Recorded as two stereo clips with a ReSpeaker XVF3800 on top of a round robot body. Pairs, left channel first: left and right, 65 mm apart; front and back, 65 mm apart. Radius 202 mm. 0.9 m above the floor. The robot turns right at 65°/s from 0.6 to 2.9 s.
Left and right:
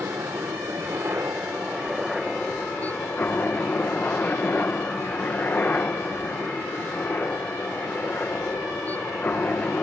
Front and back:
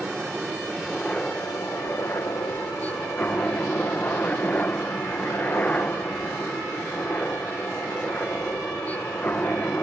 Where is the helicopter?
100° right; by 9.8 s 50° left.